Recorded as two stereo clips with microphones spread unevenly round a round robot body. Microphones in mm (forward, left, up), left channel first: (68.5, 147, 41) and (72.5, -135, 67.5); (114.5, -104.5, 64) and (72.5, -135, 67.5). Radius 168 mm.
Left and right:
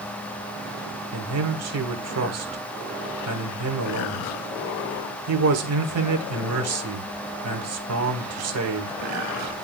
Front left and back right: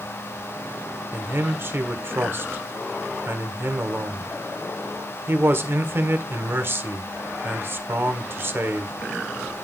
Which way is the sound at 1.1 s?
110° right.